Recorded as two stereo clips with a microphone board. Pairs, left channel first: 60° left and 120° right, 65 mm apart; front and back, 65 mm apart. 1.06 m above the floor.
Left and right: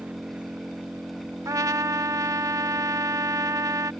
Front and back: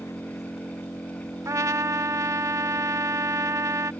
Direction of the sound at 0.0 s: 50° right.